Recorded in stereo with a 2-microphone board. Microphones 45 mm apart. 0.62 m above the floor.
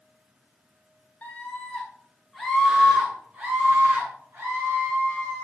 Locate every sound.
1.2 s a scream: 35° left (ahead or behind), 1.4 m; by 5.4 s 55° right (ahead or behind), 2 m